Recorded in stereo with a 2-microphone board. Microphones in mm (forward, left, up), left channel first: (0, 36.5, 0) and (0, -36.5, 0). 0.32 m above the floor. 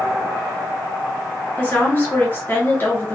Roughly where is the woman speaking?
Left.